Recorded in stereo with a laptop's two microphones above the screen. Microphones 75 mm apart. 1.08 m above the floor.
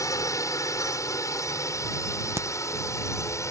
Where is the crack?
35° right (ahead or behind).